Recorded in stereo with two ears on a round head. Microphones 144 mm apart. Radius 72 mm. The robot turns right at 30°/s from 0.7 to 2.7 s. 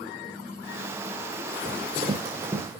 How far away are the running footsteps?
About 8.5 m.